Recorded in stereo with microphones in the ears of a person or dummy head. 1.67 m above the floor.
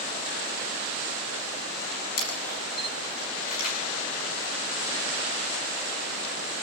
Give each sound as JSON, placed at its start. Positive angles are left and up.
{"t": 2.2, "sound": "a camera shutter", "side_deg": 50, "distance_m": 7.0}